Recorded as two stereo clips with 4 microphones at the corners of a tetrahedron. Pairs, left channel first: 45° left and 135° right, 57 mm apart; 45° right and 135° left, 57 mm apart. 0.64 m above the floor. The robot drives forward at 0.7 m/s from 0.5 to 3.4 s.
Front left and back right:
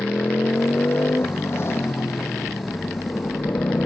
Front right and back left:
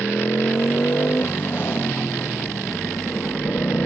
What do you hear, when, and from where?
0.0 s a motorcycle: straight ahead